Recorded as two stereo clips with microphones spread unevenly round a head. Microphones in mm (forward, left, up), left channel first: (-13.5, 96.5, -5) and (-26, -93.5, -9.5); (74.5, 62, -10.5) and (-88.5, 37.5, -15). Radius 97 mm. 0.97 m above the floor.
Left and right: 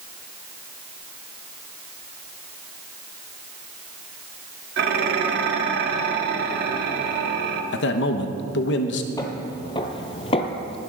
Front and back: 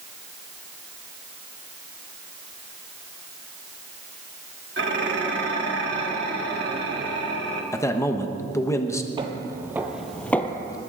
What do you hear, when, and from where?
4.8 s dishes clattering: 130° right, 1.3 m
7.7 s a man speaking: 80° left, 1.0 m
9.2 s footsteps: 145° left, 1.2 m; by 10.8 s 55° left, 1.1 m